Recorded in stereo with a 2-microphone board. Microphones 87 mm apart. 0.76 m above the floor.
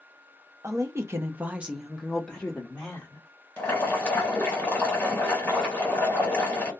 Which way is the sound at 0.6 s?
35° right (ahead or behind).